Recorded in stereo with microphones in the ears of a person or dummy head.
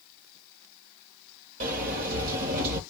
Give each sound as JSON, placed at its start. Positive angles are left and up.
{"t": 1.6, "sound": "a sliding door", "side_deg": -55, "distance_m": 1.4}